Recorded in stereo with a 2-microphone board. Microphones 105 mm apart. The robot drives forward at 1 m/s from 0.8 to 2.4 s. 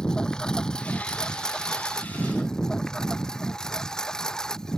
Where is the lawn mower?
5° left (ahead or behind).